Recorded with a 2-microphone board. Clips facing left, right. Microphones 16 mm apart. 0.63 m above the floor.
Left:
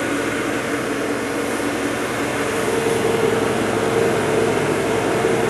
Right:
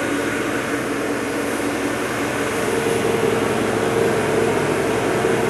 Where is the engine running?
50° left (ahead or behind), 0.8 m.